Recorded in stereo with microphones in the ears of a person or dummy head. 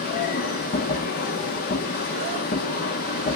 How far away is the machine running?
About 1.5 m.